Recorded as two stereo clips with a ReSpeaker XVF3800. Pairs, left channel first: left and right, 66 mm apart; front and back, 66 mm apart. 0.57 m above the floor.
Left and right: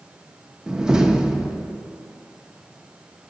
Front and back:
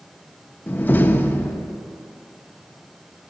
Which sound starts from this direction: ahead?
A door slam, at 0.7 s.